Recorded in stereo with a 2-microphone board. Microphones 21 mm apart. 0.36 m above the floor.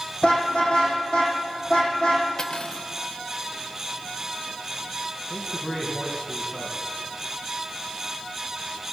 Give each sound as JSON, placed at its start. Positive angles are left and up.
{"t": 0.2, "sound": "a car horn", "side_deg": 45, "distance_m": 8.5}
{"t": 2.4, "sound": "cutlery clinking", "side_deg": 30, "distance_m": 0.7}
{"t": 5.3, "sound": "a man speaking", "side_deg": 30, "distance_m": 3.5}